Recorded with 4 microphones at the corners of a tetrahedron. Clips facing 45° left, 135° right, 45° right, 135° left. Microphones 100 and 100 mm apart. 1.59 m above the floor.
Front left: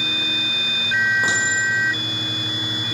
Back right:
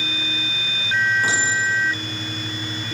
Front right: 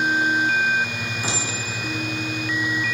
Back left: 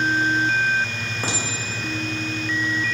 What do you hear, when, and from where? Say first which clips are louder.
1.2 s a clink: even, back left 2 dB; 105° left, 4 m